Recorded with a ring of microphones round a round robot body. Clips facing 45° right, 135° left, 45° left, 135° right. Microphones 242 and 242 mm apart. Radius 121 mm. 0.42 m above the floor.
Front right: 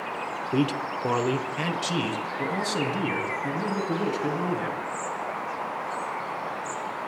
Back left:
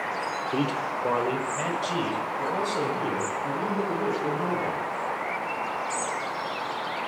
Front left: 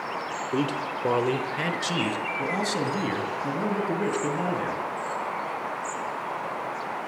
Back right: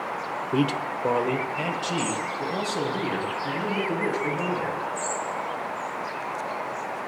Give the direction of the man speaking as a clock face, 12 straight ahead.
3 o'clock.